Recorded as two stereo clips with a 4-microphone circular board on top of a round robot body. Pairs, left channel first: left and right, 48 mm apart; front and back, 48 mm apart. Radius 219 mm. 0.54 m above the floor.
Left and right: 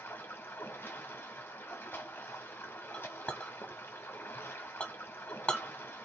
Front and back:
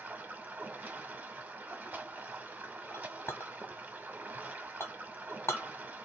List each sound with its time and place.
0.0 s running water: 130° left, 1.2 m
2.9 s a clink: 25° left, 1.6 m